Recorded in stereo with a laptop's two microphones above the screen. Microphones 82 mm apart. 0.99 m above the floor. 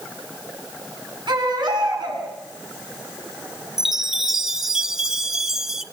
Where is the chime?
5° right (ahead or behind), 0.9 m.